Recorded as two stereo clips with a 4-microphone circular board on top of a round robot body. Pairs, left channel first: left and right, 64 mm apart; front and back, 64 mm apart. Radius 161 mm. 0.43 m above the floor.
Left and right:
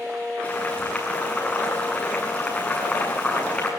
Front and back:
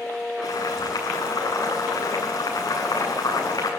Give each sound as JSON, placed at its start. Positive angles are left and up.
{"t": 0.4, "sound": "boiling", "azimuth_deg": 20, "distance_m": 8.0}